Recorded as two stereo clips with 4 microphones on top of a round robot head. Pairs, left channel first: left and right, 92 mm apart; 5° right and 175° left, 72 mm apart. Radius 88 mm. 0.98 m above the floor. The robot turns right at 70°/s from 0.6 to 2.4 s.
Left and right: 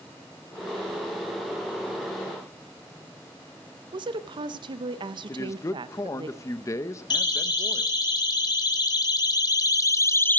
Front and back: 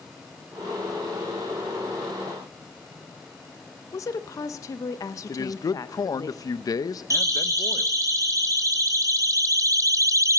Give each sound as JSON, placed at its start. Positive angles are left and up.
{"t": 3.9, "sound": "a woman speaking", "azimuth_deg": -55, "distance_m": 0.6}
{"t": 5.3, "sound": "a man speaking", "azimuth_deg": 30, "distance_m": 0.6}
{"t": 7.1, "sound": "a siren", "azimuth_deg": 130, "distance_m": 3.5}